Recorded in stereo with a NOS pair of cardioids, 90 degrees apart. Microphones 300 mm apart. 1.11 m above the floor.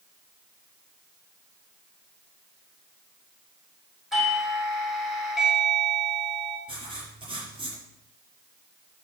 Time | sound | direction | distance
4.1 | a doorbell | straight ahead | 5.5 m
6.7 | writing | 15° right | 5.5 m